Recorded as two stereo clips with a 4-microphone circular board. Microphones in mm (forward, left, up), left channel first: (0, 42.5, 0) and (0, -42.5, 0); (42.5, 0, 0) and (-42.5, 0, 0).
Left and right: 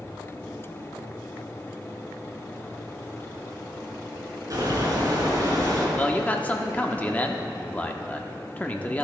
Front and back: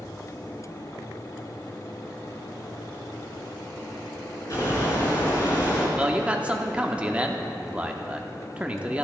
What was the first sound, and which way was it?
A bird, 45° right.